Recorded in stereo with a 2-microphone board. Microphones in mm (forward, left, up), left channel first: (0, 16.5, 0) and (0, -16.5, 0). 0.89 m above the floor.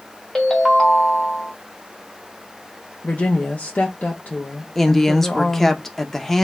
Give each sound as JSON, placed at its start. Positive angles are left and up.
{"t": 0.3, "sound": "a ringtone", "side_deg": 10, "distance_m": 1.2}
{"t": 3.0, "sound": "a woman speaking", "side_deg": 45, "distance_m": 0.5}
{"t": 4.8, "sound": "a woman speaking", "side_deg": 5, "distance_m": 0.5}